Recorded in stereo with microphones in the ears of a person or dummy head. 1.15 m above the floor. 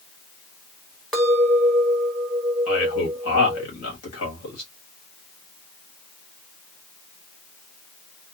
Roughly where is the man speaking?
Left.